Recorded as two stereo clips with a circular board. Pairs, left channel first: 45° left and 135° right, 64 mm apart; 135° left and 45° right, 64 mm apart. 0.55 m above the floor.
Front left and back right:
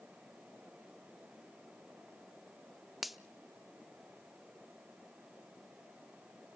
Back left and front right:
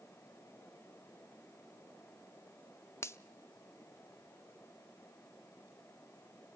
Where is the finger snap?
140° left, 0.5 m.